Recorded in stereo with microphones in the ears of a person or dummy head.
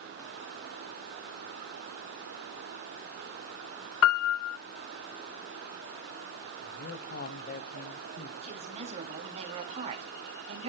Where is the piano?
70° left (ahead or behind), 0.7 m.